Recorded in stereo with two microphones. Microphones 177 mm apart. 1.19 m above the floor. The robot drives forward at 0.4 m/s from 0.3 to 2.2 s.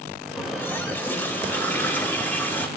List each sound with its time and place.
0.4 s a running tap: 10° left (ahead or behind), 3.5 m